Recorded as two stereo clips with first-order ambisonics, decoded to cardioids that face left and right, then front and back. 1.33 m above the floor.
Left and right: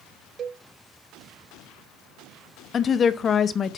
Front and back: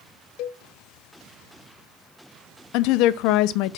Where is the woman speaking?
25° left, 0.6 m.